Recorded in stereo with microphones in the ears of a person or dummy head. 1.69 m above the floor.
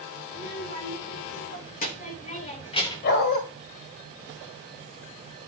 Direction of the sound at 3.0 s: 50° left (ahead or behind).